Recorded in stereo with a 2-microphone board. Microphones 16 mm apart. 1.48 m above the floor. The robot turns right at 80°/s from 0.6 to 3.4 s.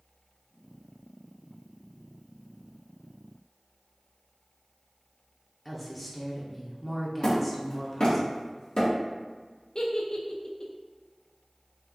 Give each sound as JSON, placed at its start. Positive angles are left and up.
{"t": 5.7, "sound": "a woman speaking", "side_deg": -5, "distance_m": 0.7}
{"t": 7.2, "sound": "hammering", "side_deg": 50, "distance_m": 1.7}
{"t": 9.8, "sound": "a giggle", "side_deg": 50, "distance_m": 0.5}